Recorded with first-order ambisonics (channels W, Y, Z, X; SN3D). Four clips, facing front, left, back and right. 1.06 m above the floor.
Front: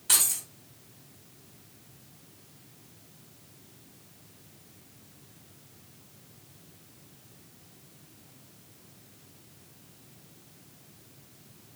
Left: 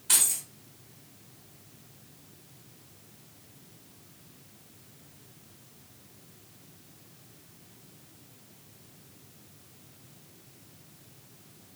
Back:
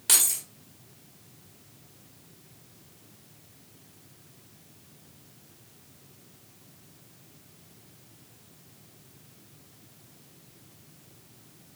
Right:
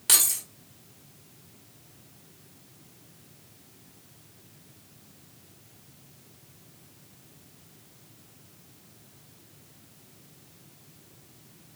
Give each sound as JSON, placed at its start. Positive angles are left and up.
{"t": 0.1, "sound": "keys jangling", "azimuth_deg": -130, "distance_m": 1.4}